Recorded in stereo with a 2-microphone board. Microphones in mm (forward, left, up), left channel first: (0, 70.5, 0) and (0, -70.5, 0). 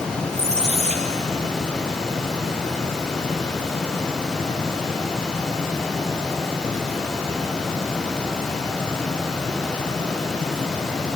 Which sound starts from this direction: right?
A squeak, at 0.3 s.